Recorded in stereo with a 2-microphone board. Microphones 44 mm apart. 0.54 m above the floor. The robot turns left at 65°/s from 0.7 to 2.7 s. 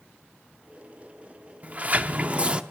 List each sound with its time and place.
1.6 s a sliding door: 70° right, 0.6 m; by 2.6 s 135° right, 0.6 m